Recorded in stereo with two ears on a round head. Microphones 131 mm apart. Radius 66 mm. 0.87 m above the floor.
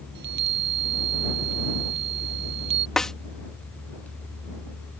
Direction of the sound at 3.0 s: 5° left (ahead or behind).